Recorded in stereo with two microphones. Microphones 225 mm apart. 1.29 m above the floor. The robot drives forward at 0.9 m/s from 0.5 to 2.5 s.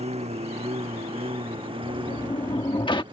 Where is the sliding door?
35° left (ahead or behind); by 3.0 s 20° left (ahead or behind).